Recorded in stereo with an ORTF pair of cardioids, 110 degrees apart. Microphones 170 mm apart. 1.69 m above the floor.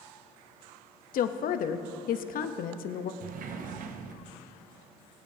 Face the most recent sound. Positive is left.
turn(degrees=-55)